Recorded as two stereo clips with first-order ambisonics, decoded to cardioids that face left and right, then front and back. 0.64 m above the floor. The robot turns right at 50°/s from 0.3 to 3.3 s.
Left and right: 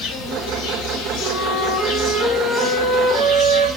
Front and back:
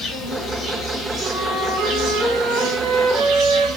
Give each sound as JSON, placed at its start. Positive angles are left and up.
{"t": 0.0, "sound": "an insect", "azimuth_deg": 65, "distance_m": 1.9}
{"t": 1.2, "sound": "a flute", "azimuth_deg": 140, "distance_m": 1.4}